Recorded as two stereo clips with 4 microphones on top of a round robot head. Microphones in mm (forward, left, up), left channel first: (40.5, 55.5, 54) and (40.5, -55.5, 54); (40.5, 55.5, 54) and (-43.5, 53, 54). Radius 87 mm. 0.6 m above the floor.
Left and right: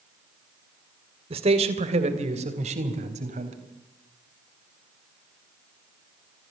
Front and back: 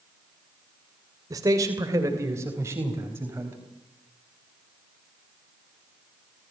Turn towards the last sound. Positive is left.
turn(degrees=-110)